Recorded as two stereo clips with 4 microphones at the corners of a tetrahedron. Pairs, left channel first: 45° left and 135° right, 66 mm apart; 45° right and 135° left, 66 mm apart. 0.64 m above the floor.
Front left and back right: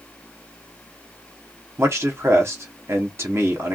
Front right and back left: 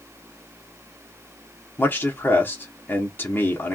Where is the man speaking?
95° right, 1.2 m.